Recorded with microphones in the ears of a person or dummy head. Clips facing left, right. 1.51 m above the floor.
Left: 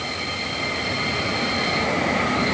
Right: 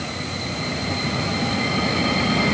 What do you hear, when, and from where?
Only background noise.